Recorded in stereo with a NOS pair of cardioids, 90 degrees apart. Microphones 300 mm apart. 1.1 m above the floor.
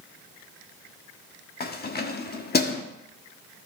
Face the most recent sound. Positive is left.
turn(degrees=30)